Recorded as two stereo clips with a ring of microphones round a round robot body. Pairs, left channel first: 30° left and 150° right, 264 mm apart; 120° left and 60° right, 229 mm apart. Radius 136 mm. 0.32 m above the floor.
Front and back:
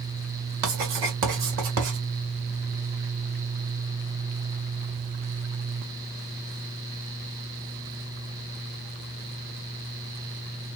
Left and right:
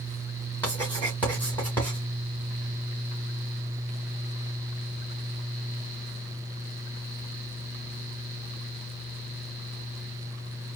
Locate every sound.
0.6 s writing: 160° right, 2 m